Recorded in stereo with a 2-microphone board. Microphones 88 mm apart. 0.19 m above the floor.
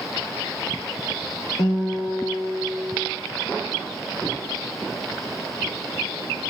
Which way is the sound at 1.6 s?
40° left (ahead or behind).